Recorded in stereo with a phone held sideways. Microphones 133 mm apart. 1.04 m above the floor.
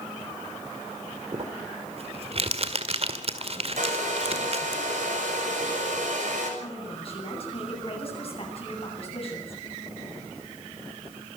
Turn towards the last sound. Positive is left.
turn(degrees=45)  # may be behind; listen again after turning